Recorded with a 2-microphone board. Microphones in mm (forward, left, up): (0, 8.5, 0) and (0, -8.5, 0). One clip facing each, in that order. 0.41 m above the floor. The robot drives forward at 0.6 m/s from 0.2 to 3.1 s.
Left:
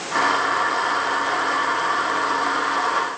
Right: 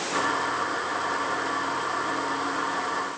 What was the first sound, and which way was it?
Only background noise.